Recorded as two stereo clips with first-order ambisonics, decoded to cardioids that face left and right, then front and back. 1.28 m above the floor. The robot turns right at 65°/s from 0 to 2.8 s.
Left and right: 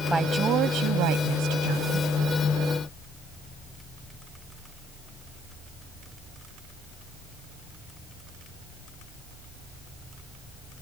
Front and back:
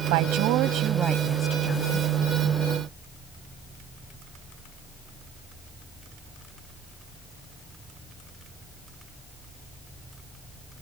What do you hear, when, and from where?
0.1 s a woman speaking: 170° right; by 2.1 s 45° right